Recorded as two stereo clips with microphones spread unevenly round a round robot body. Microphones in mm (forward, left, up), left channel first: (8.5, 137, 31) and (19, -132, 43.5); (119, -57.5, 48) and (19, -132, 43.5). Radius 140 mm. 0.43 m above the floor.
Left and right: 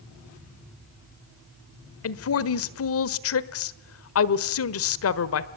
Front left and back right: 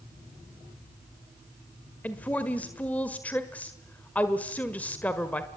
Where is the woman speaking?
115° left, 1.5 m.